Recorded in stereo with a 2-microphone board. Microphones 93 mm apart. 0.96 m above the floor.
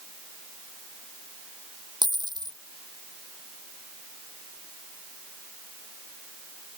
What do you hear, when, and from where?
2.0 s a dropped coin: 50° right (ahead or behind)